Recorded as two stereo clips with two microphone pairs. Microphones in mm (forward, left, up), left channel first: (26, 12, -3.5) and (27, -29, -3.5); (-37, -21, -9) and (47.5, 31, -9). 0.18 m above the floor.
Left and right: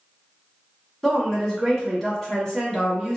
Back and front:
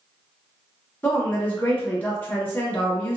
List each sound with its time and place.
1.0 s a woman speaking: 165° left, 1.3 m